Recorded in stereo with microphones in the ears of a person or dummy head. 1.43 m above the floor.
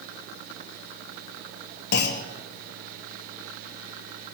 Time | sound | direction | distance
1.9 | a clunk | 60° left (ahead or behind) | 0.9 m